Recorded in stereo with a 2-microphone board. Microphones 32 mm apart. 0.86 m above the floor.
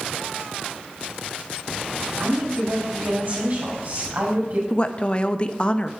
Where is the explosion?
No explosion in this recording.